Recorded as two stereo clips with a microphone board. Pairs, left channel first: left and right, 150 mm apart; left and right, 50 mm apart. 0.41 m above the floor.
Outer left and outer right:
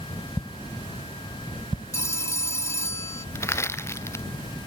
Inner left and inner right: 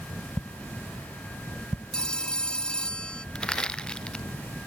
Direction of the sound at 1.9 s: 20° left (ahead or behind).